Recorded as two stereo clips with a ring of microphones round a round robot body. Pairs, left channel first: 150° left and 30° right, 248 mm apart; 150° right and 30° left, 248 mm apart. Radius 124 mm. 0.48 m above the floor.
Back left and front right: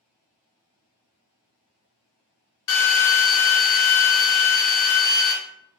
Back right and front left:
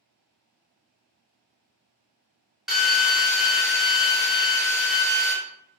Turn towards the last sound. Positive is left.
turn(degrees=120)